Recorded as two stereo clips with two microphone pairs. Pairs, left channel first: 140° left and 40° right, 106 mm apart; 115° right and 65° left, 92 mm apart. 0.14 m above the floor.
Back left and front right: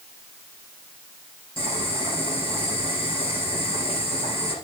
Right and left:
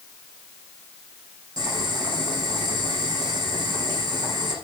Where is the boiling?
105° left, 6.5 m.